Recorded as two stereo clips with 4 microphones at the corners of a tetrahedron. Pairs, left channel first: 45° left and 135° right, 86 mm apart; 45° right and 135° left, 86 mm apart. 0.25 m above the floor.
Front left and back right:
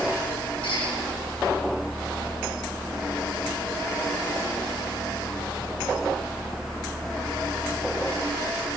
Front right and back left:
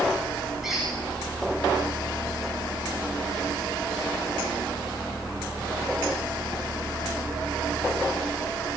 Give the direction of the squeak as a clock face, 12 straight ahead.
10 o'clock.